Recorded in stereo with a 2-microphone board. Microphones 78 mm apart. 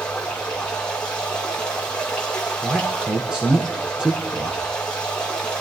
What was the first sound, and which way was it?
Running water, 10° left (ahead or behind).